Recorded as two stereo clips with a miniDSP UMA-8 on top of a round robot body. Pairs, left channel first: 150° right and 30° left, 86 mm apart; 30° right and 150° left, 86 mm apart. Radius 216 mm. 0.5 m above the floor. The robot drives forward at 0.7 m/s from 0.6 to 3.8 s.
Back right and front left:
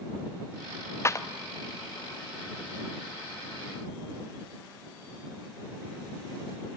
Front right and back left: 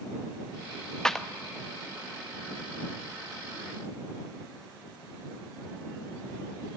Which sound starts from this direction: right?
A clap, at 1.1 s.